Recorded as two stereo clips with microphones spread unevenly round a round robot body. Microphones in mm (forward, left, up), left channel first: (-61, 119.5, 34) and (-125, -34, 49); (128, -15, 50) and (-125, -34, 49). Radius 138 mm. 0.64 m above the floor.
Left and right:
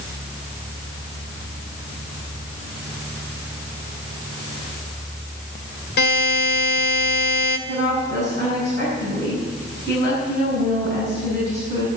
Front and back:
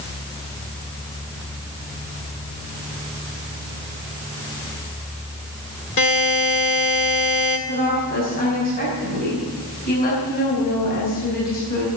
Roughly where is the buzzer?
Ahead left.